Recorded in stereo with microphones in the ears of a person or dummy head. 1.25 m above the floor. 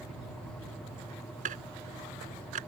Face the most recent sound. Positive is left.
turn(degrees=-35)  # may be behind; listen again after turning